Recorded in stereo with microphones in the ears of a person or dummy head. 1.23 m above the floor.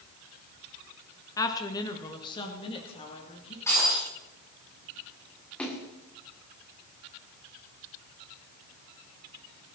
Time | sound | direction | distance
1.4 | a woman speaking | 10° left (ahead or behind) | 1.5 m
3.7 | breaking glass | 20° left (ahead or behind) | 8 m
5.6 | a splash | 15° left (ahead or behind) | 2.5 m